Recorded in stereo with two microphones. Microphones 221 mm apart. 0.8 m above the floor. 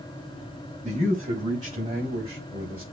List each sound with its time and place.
0.8 s a man speaking: 35° right (ahead or behind), 5.5 m; by 2.8 s 25° right (ahead or behind), 3.5 m